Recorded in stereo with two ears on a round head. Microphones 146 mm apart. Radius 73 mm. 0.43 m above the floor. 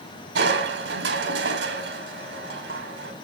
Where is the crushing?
75° right (ahead or behind), 1.9 m.